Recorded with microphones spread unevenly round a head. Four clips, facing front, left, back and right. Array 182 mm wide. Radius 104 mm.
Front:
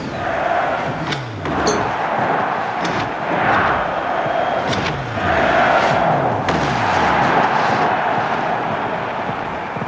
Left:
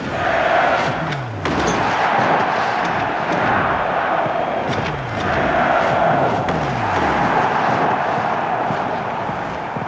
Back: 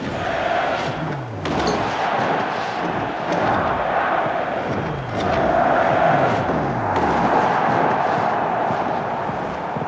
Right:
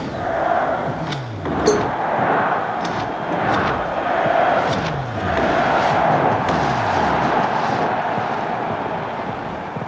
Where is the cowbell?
90° right.